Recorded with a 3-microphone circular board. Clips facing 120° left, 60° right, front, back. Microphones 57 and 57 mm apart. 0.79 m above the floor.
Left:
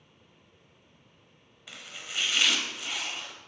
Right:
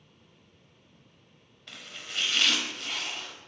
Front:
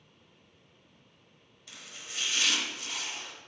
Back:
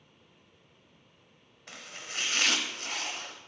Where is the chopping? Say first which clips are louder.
Even, back 4 dB; 160° right, 0.8 m.